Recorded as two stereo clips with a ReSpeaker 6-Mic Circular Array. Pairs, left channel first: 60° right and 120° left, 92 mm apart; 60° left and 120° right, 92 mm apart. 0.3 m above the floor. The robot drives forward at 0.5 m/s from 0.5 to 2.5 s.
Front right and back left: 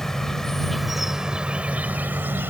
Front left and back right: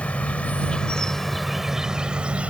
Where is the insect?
15° left; by 2.5 s 175° left.